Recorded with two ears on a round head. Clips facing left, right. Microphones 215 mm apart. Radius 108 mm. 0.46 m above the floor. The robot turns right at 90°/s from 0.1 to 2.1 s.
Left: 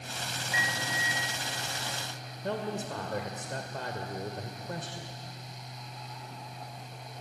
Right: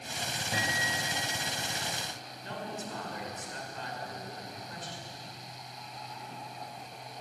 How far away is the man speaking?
About 2 m.